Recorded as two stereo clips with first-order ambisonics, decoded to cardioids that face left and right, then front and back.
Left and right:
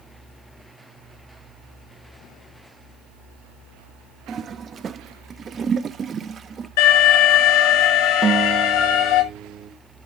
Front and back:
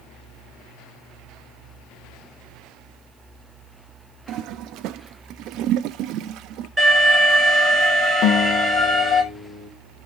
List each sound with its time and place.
4.3 s a toilet flushing: 155° right, 0.5 m
6.8 s an alarm: 100° left, 5.5 m
8.2 s a guitar: 30° right, 1.4 m